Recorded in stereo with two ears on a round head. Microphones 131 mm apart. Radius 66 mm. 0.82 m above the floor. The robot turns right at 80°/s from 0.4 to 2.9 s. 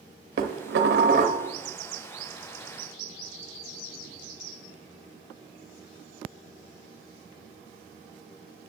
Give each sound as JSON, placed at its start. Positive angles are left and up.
{"t": 0.4, "sound": "dishes clattering", "azimuth_deg": -120, "distance_m": 0.8}